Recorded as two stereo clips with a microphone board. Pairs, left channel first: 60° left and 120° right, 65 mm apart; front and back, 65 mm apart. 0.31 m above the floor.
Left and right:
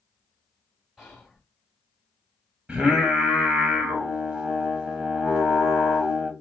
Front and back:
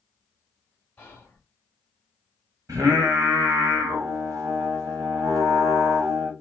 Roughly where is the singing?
Behind.